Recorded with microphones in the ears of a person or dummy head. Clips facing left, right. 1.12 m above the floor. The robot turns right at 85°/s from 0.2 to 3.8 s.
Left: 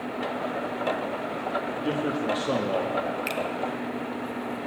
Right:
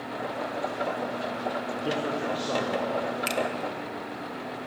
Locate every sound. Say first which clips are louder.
1.7 s a man speaking: left 3 dB; 15° right, 1.2 m; by 3.0 s 95° left, 1.2 m
3.3 s a finger snap: right 1 dB; 5° right (ahead or behind), 0.6 m; by 3.4 s 5° left (ahead or behind), 0.6 m